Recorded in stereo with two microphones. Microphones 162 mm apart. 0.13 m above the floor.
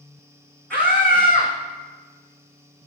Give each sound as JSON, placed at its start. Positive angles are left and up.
{"t": 0.7, "sound": "a scream", "side_deg": 10, "distance_m": 8.0}